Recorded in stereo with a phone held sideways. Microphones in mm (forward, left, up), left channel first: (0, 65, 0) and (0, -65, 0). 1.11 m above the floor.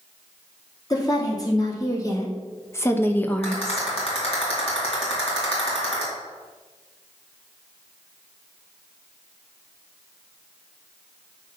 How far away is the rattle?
About 3 m.